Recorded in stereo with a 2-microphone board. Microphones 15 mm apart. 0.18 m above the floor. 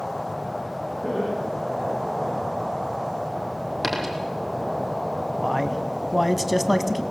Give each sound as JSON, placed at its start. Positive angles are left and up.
{"t": 1.0, "sound": "laughter", "side_deg": 80, "distance_m": 8.5}
{"t": 3.8, "sound": "a dropped coin", "side_deg": 10, "distance_m": 3.0}
{"t": 5.4, "sound": "a man speaking", "side_deg": -5, "distance_m": 1.0}